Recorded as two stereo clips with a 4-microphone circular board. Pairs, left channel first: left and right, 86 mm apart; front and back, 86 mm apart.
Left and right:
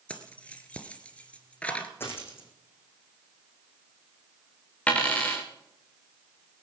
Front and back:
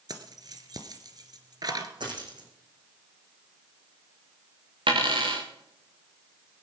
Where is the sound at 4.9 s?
165° left, 3.5 m.